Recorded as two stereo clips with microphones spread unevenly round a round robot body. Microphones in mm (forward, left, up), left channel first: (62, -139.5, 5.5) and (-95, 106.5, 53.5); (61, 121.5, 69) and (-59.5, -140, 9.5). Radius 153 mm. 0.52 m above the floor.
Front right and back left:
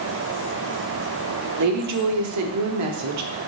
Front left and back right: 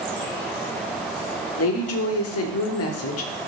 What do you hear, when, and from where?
1.6 s a woman speaking: 100° left, 1.0 m